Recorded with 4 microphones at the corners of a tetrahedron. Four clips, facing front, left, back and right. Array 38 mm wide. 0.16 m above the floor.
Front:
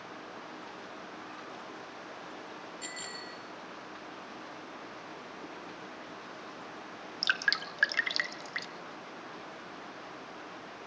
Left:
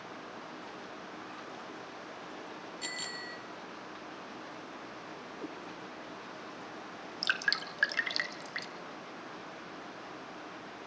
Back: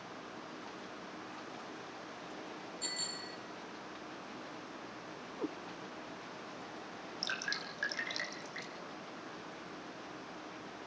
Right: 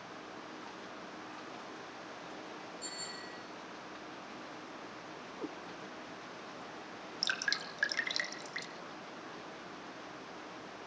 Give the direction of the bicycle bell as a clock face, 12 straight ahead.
10 o'clock.